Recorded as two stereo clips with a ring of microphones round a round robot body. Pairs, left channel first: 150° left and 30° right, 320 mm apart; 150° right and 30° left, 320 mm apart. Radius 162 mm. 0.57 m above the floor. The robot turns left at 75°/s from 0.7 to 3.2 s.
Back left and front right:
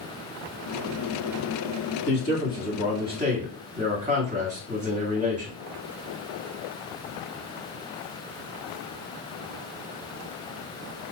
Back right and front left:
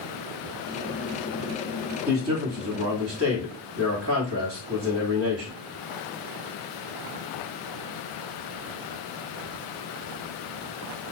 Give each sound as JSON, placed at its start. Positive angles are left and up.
{"t": 2.1, "sound": "a man speaking", "azimuth_deg": 115, "distance_m": 1.4}